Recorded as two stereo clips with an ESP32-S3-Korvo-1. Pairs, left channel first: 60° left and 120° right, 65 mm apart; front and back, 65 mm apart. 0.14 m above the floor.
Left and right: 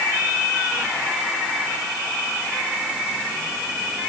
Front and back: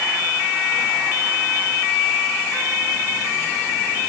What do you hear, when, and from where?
Only background noise.